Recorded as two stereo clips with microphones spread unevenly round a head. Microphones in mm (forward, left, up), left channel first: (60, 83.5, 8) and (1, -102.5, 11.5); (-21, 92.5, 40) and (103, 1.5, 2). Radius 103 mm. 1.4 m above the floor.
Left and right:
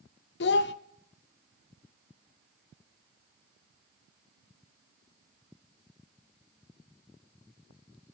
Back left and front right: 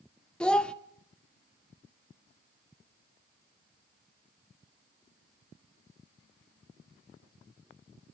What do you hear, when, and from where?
0.4 s a child speaking: 75° left, 0.7 m